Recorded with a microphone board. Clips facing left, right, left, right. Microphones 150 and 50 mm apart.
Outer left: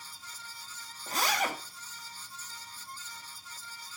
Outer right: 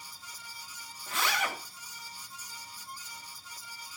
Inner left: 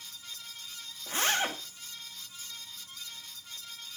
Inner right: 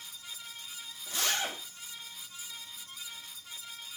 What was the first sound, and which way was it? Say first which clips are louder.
A zipper: outer left 2 dB, inner left 4 dB; 40° left (ahead or behind).